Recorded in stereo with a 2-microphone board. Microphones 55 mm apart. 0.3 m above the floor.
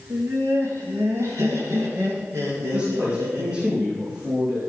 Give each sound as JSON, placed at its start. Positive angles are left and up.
{"t": 0.1, "sound": "laughter", "side_deg": -75, "distance_m": 4.0}
{"t": 2.5, "sound": "a man speaking", "side_deg": -25, "distance_m": 5.0}